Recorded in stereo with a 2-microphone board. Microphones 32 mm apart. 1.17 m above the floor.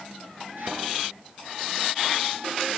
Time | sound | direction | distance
0.6 | a thud | 75° right (ahead or behind) | 9 m